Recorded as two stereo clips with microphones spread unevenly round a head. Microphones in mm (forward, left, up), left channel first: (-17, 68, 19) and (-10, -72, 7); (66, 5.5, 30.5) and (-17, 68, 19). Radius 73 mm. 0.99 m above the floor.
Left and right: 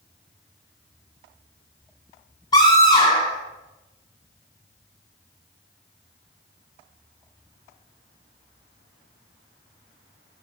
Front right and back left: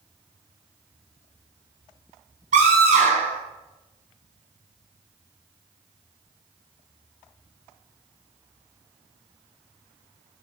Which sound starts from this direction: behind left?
A scream, at 2.5 s.